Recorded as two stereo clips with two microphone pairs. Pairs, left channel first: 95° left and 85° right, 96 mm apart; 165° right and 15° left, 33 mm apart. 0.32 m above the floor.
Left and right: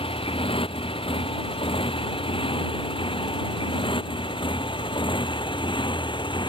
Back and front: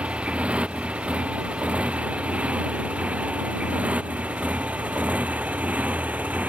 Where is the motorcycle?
75° left; by 6.5 s 60° left.